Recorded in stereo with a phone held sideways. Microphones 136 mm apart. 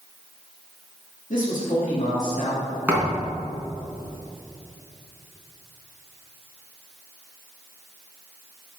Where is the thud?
10° right (ahead or behind), 3 m.